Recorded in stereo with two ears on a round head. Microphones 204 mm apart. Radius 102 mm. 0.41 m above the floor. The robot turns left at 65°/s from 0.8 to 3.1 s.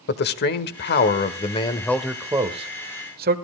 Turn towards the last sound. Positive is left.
turn(degrees=-70)